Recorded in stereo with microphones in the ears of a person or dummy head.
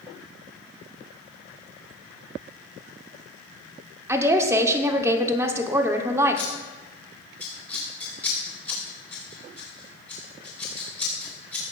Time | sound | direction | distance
4.1 | a woman speaking | 15° right (ahead or behind) | 1.0 m
6.4 | scissors | 10° left (ahead or behind) | 3.5 m